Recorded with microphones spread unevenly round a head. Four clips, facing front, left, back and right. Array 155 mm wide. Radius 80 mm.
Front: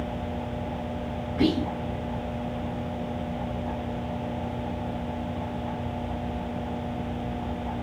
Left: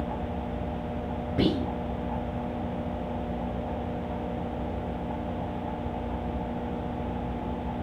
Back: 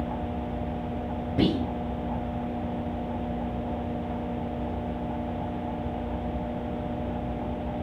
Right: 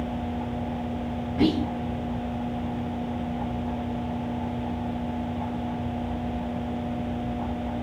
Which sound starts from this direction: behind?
Whispering, at 1.4 s.